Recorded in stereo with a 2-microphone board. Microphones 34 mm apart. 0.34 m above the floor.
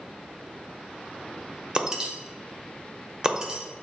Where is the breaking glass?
20° right (ahead or behind), 0.6 m.